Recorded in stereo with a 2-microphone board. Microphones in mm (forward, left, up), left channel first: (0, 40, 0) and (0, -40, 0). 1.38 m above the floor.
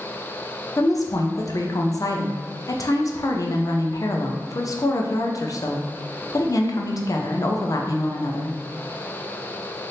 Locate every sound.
0.8 s a woman speaking: 45° left (ahead or behind), 0.5 m